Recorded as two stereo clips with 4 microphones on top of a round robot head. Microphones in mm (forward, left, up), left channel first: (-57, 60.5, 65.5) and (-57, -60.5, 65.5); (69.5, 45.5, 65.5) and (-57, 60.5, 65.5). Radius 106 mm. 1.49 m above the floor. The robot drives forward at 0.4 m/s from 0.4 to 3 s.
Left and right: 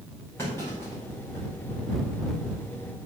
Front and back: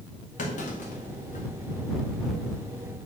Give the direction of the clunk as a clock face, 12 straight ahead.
12 o'clock.